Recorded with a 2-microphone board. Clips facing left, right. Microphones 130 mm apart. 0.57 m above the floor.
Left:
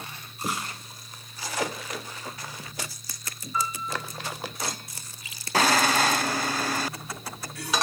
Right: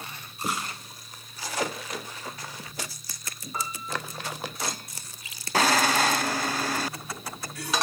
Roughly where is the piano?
Right.